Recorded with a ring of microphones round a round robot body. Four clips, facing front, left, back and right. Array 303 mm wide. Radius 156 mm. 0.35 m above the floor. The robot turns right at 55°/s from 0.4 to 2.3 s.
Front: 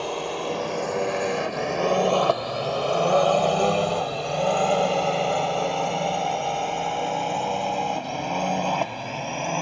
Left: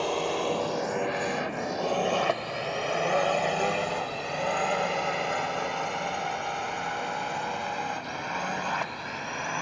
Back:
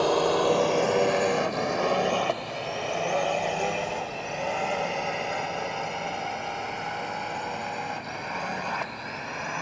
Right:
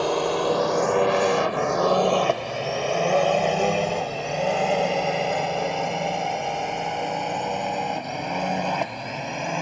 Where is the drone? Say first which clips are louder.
Right 5 dB, back 6 dB; 135° right; by 9.6 s 40° right.